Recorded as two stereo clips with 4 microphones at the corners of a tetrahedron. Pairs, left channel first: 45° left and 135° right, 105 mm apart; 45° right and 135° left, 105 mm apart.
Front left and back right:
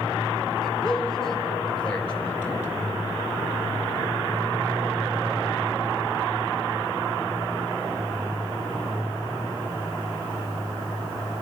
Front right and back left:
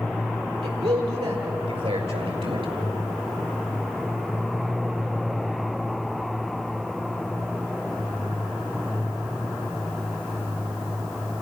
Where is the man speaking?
135° left, 6.5 m; by 2.7 s 115° left, 4 m.